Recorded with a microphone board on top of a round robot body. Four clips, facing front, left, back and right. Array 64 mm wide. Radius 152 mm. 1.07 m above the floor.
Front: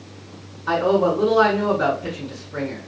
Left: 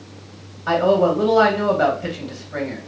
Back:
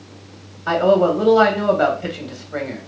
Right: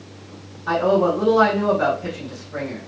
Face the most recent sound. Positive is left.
turn(degrees=170)